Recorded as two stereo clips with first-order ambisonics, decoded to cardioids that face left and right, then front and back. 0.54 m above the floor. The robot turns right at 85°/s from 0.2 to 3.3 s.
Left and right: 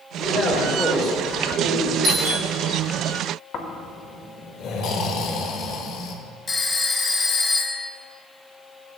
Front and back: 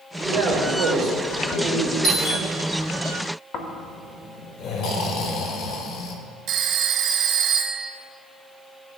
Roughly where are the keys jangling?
I don't hear keys jangling.